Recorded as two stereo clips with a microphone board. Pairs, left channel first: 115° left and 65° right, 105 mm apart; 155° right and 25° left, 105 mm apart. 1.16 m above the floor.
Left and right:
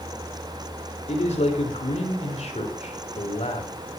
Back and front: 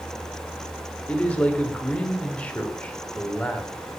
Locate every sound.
1.1 s a man speaking: 125° left, 3.5 m